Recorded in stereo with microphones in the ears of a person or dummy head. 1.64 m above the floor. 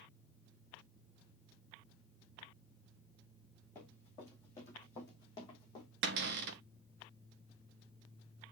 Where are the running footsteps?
10° left (ahead or behind), 5 m; by 5.9 s 25° left (ahead or behind), 4 m.